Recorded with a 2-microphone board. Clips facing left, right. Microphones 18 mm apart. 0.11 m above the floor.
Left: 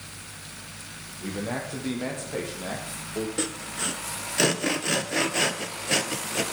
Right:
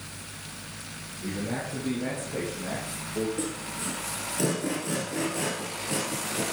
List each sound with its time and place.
1.2 s a man speaking: 50° left (ahead or behind), 5 m; by 3.3 s 25° left (ahead or behind), 3.5 m
3.4 s sawing: 60° left (ahead or behind), 1.3 m